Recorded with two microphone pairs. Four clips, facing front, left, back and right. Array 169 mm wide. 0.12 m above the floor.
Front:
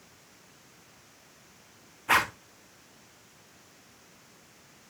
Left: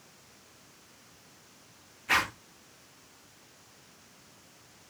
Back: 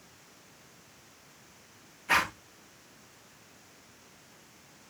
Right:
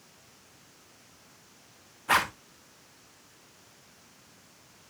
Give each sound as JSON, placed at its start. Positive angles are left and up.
{"t": 2.1, "sound": "a zipper", "azimuth_deg": -50, "distance_m": 2.0}